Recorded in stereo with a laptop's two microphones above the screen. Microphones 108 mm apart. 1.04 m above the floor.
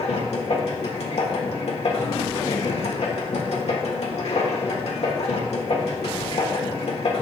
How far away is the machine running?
About 1.3 m.